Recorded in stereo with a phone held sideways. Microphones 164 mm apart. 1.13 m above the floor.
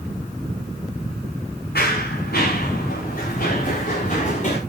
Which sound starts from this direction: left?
Running footsteps, at 1.8 s.